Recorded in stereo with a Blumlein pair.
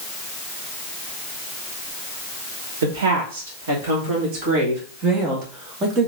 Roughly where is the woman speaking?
Ahead right.